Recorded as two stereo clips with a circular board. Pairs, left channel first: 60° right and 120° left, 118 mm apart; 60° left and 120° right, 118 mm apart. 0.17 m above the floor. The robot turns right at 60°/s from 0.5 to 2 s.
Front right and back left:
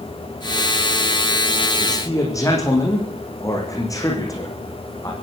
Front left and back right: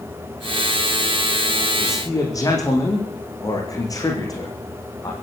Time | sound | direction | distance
1.8 | a man speaking | 10° right | 9.5 m